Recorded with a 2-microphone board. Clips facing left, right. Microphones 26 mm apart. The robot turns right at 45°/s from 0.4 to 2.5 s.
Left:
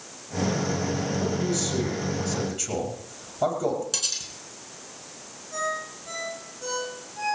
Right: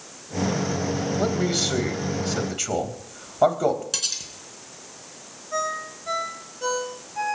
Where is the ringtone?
40° right (ahead or behind), 10 m.